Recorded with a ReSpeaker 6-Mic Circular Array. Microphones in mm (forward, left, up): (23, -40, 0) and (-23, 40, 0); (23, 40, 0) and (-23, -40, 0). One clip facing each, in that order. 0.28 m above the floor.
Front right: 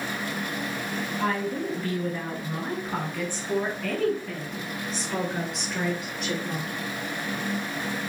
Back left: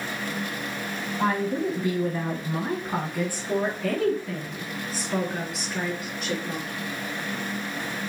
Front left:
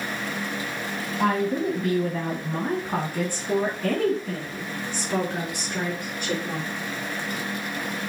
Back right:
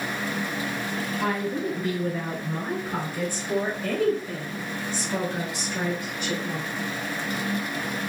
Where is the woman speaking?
65° left, 2 m; by 6.7 s 30° left, 5 m.